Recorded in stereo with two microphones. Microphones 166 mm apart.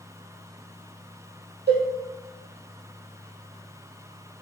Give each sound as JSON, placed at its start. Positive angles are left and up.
{"t": 1.7, "sound": "a cowbell", "side_deg": -85, "distance_m": 2.5}